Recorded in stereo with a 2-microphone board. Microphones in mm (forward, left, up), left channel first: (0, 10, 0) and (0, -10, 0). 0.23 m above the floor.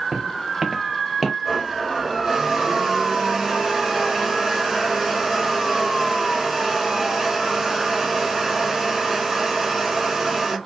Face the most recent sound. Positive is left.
turn(degrees=-25)  # may be behind; listen again after turning